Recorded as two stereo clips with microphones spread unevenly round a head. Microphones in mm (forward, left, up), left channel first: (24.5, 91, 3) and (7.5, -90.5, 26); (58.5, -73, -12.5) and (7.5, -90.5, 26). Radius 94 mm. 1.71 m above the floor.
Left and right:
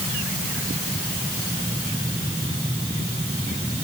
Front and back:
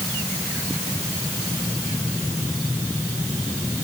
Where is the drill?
No drill in this recording.